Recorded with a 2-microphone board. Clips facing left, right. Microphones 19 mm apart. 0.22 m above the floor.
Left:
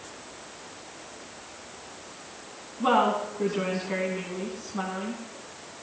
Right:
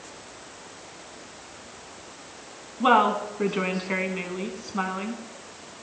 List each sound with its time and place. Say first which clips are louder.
2.8 s a woman speaking: right 3 dB; 40° right (ahead or behind), 1.6 m